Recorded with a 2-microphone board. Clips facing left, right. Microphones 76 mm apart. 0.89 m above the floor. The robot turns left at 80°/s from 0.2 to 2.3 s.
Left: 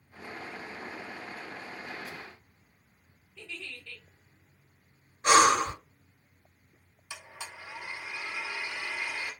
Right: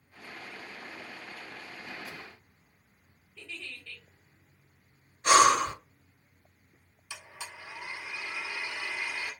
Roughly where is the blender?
Centre.